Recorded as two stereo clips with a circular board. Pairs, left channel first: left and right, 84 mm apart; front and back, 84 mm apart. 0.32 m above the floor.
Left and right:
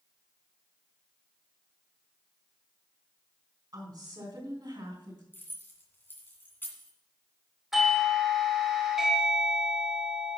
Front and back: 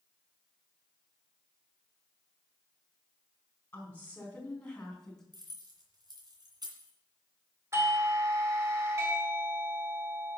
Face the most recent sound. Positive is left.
turn(degrees=-175)